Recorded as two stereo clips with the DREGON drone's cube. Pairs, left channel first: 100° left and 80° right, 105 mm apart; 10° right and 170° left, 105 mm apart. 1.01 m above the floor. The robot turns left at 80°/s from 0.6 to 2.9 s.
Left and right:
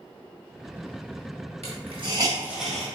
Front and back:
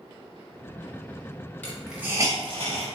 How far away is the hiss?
About 1.2 m.